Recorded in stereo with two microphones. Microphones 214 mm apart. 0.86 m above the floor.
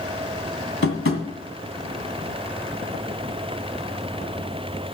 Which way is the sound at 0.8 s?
75° left (ahead or behind).